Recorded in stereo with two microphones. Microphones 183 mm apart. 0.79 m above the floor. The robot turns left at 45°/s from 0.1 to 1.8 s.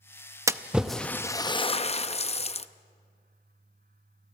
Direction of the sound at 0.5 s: 15° right (ahead or behind).